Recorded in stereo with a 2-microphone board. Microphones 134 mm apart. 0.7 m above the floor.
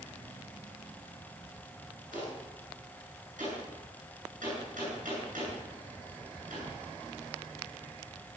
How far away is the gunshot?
About 9.5 m.